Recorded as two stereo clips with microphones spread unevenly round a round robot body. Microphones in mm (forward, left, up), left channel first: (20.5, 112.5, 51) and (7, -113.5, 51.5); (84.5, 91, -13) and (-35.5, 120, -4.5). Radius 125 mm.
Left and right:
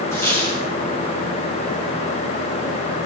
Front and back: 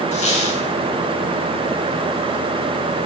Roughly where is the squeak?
Ahead.